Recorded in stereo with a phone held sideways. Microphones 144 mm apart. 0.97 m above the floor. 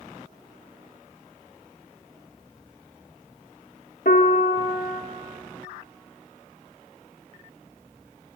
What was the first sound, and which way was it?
A piano, 80° left.